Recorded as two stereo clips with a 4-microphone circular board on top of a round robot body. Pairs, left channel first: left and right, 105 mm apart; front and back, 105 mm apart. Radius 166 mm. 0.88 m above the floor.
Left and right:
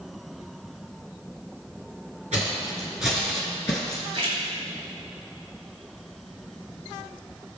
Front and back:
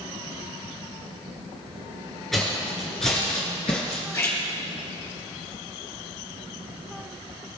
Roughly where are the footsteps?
Right.